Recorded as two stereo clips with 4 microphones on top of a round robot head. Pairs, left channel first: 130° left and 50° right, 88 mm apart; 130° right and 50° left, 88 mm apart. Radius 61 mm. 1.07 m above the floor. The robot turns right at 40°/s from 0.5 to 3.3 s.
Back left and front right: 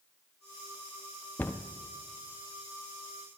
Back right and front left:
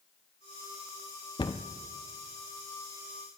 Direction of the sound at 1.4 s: 165° right.